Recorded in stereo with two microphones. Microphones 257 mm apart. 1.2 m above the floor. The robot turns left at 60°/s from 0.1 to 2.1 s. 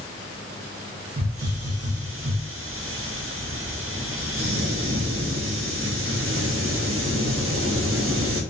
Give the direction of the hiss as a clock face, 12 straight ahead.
2 o'clock.